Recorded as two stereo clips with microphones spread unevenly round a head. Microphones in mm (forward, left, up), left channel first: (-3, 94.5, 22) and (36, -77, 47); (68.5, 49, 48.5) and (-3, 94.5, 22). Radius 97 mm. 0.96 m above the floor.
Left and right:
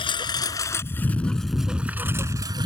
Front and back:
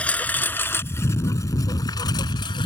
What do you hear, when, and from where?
0.0 s a lawn mower: 40° left; by 2.7 s 15° right